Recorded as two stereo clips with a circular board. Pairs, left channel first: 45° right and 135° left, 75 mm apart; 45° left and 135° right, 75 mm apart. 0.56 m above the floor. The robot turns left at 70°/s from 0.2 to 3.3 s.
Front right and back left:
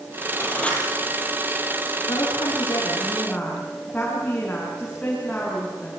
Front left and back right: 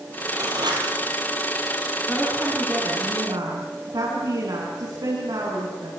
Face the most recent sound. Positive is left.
turn(degrees=-120)